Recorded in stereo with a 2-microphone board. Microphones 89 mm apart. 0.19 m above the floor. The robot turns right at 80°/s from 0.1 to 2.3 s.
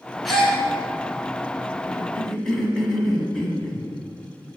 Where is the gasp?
Centre (ahead or behind), 1.1 m; by 0.6 s 20° left (ahead or behind), 1.1 m.